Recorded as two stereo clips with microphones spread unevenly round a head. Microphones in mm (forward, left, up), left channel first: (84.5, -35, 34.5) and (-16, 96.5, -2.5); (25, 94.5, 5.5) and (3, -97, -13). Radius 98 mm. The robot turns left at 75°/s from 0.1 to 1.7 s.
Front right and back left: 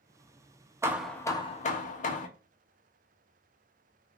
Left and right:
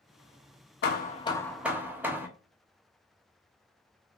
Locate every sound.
0.8 s hammering: 50° left, 0.7 m; by 2.3 s 15° right, 0.7 m